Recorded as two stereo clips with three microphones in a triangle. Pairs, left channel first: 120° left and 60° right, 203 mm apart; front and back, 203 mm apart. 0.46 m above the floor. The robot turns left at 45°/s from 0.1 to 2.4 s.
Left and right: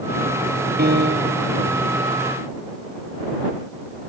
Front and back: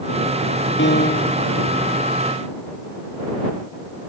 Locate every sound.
0.8 s a piano: 20° right; by 1.5 s 55° right